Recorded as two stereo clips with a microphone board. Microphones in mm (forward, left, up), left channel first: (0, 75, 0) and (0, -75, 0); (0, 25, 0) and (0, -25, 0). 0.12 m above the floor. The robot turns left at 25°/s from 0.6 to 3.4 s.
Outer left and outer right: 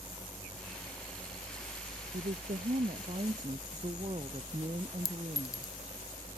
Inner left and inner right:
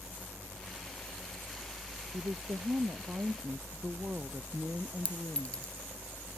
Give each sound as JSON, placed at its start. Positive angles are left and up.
{"t": 0.0, "sound": "a helicopter", "side_deg": -15}
{"t": 2.1, "sound": "a woman speaking", "azimuth_deg": -110}
{"t": 5.0, "sound": "a clink", "side_deg": 25}